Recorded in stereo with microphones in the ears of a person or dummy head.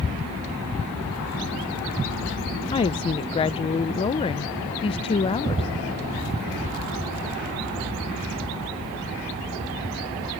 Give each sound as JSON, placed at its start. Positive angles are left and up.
{"t": 2.7, "sound": "a woman speaking", "side_deg": 25}